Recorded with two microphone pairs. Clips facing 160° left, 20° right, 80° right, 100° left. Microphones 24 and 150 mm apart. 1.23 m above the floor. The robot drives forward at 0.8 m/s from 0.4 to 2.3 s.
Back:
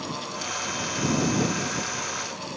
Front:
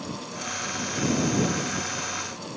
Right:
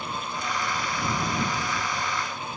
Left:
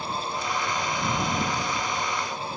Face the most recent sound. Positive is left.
No sound to turn to.